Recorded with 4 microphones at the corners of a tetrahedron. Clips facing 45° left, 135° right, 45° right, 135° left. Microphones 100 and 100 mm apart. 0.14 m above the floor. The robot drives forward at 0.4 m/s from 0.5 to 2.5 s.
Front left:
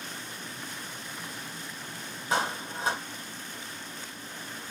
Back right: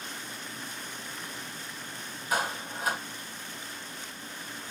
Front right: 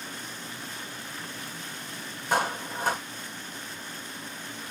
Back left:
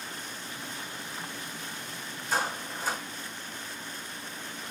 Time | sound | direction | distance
2.3 | a clap | 20° right | 4.5 m